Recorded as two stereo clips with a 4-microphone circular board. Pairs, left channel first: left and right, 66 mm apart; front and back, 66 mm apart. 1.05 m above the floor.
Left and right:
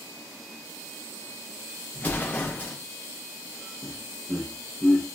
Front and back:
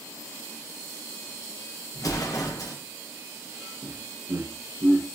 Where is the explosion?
25° left, 0.8 m.